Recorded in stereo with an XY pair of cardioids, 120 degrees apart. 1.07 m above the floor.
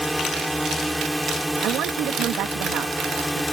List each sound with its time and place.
0.0 s a drone: straight ahead
1.6 s a woman speaking: 70° right